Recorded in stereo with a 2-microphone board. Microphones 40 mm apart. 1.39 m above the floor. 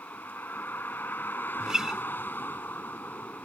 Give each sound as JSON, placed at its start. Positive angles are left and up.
{"t": 0.0, "sound": "a vehicle", "side_deg": 55}
{"t": 1.6, "sound": "a guitar", "side_deg": -15}